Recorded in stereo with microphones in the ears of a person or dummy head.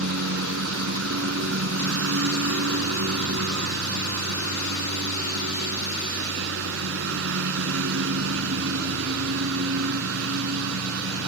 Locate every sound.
0.0 s a lawn mower: 75° right (ahead or behind)